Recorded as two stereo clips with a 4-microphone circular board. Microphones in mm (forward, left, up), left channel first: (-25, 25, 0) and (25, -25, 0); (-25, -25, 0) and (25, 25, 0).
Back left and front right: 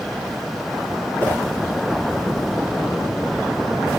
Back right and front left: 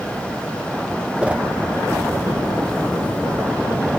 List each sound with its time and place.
1.2 s a whoosh: 100° left, 0.7 m